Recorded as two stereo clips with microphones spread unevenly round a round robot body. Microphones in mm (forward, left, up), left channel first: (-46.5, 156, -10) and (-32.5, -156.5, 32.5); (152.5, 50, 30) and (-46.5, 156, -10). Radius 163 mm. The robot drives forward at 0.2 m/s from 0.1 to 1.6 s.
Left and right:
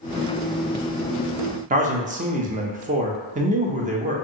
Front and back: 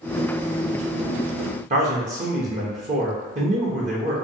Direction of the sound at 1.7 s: 155° right.